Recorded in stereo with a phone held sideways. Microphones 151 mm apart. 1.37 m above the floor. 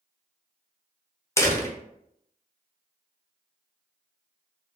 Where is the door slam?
20° left (ahead or behind), 0.7 m.